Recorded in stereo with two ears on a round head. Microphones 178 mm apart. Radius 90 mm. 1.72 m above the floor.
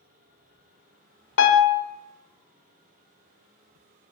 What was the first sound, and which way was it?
A piano, 60° left (ahead or behind).